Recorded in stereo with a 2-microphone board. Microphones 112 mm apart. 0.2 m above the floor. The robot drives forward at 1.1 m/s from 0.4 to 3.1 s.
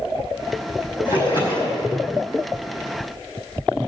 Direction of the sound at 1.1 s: 45° left (ahead or behind).